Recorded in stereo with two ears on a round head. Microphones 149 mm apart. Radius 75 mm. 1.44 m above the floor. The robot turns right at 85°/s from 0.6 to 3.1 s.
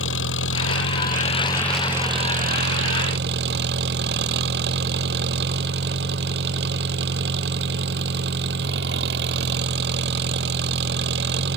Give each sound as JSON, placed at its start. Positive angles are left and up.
{"t": 0.0, "sound": "an engine running", "azimuth_deg": 80}